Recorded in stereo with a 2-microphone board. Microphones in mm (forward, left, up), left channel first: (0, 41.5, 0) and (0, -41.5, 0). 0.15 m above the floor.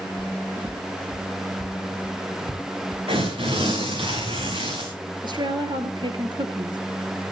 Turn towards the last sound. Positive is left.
turn(degrees=-55)  # may be behind; listen again after turning